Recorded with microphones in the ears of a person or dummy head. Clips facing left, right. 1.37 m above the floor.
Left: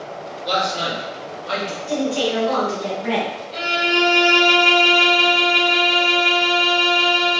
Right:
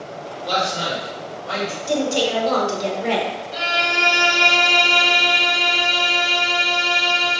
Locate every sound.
0.5 s a man speaking: 30° left (ahead or behind), 2.0 m; by 1.8 s 40° left (ahead or behind), 1.4 m
1.9 s a woman speaking: 60° right (ahead or behind), 1.2 m
3.5 s a violin: 5° right (ahead or behind), 1.4 m